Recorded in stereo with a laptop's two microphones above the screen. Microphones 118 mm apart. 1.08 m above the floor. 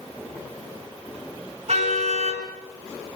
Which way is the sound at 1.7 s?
60° right (ahead or behind).